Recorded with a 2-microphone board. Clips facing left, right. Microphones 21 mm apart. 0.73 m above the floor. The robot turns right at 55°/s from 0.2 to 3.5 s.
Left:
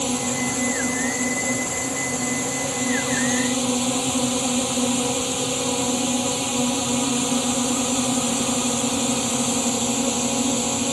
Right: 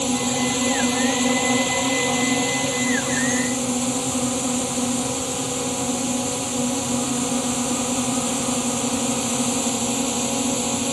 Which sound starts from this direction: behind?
A drone, at 0.0 s.